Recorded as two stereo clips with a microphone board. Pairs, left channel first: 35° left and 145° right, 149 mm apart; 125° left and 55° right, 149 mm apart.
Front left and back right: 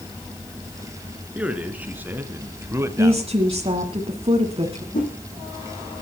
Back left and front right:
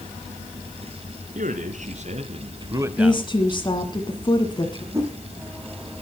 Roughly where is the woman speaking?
Behind.